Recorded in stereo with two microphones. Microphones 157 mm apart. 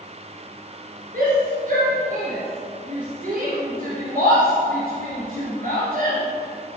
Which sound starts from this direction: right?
A shout, at 1.1 s.